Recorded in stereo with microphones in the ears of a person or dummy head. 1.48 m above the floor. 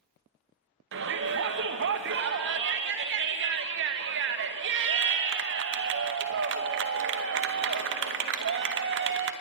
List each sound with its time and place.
0.9 s a shout: 55° right (ahead or behind), 0.9 m